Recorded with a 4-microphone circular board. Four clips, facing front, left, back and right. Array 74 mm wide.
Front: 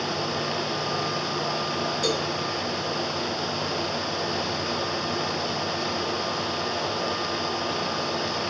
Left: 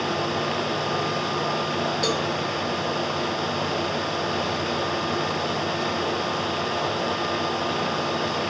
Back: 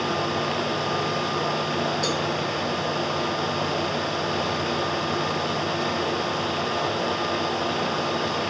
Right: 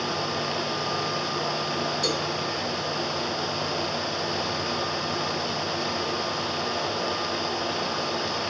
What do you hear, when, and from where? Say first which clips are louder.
2.0 s a cowbell: left 3 dB, back 1 dB; 75° left, 2.0 m